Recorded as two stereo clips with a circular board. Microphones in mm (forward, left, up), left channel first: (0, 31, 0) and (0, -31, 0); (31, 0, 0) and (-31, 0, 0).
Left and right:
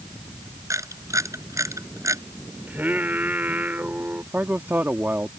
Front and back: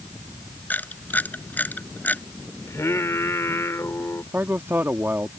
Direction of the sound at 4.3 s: 135° right.